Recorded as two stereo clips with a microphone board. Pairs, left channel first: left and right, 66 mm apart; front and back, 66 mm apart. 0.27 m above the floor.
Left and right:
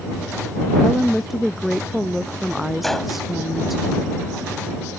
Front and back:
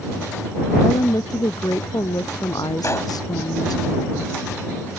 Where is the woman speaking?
Straight ahead.